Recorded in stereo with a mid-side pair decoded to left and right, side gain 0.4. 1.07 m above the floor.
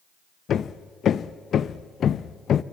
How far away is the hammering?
About 0.6 m.